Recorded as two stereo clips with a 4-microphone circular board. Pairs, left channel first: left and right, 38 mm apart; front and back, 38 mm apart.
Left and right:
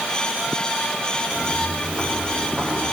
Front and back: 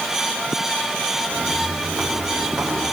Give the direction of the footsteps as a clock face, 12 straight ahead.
5 o'clock.